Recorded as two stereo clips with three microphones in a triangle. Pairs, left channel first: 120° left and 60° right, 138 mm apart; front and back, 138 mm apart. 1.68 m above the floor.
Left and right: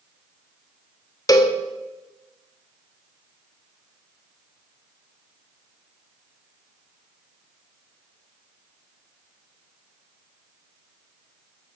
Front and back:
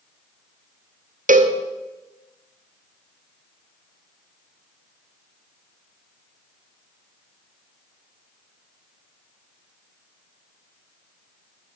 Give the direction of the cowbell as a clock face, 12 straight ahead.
6 o'clock.